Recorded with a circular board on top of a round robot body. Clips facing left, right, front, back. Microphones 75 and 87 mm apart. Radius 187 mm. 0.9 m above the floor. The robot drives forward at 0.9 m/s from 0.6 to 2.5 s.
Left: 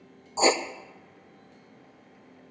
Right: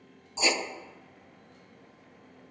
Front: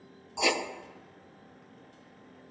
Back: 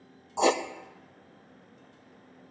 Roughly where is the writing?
Behind left.